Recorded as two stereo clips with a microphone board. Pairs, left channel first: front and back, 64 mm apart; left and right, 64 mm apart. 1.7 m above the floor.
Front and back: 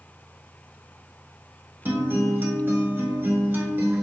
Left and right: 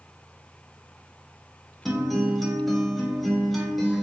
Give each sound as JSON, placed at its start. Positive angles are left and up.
{"t": 1.9, "sound": "a guitar", "azimuth_deg": 180, "distance_m": 0.7}